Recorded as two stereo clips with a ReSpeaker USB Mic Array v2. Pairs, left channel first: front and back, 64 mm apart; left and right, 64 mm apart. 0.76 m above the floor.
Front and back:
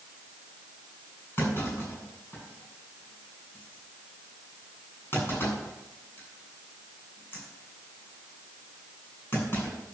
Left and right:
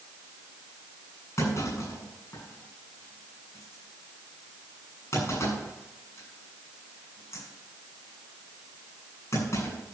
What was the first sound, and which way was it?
A clunk, 50° left.